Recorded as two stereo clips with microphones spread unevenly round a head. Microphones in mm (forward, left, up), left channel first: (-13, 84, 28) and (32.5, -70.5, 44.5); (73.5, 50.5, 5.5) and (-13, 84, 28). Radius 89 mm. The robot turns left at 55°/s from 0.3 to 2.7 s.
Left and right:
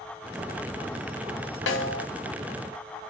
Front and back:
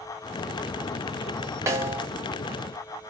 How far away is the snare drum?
About 1.2 m.